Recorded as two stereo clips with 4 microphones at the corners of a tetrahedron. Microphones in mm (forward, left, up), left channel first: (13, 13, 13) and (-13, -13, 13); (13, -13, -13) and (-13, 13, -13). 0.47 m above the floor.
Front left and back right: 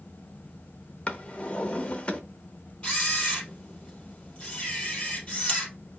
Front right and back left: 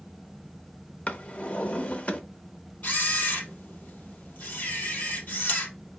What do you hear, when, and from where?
1.1 s a drawer: 5° right, 0.7 m
2.8 s a camera shutter: 15° right, 2.5 m